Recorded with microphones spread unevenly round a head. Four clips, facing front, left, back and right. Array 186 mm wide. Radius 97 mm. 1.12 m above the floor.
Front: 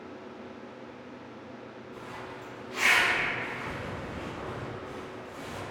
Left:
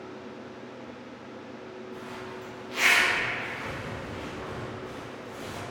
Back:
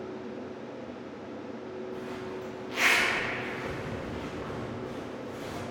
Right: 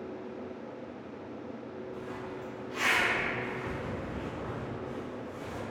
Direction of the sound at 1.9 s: 165° left.